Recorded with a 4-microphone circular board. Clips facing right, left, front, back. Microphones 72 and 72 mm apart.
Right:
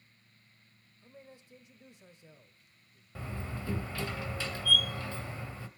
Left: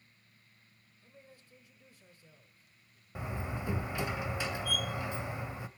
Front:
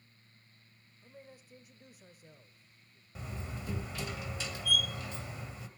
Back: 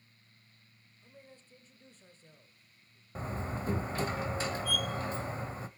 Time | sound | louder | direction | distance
1.0 | a man speaking | right 5 dB, front 2 dB | 55° right | 1.2 m
3.1 | a door slam | left 2 dB, back 6 dB | 155° left | 1.1 m